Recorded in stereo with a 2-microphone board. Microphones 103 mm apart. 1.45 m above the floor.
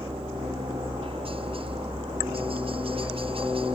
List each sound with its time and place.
0.0 s a helicopter: 65° right (ahead or behind)